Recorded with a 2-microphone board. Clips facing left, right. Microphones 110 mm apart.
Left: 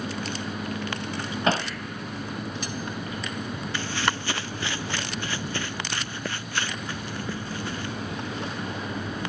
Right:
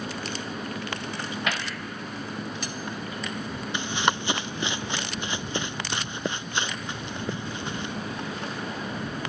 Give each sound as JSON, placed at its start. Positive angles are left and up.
{"t": 1.5, "sound": "hammering", "side_deg": 35}
{"t": 3.7, "sound": "running footsteps", "side_deg": -20}